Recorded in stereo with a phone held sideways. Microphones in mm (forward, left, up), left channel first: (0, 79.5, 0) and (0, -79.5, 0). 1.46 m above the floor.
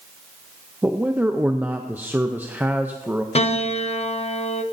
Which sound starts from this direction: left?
A piano, at 3.4 s.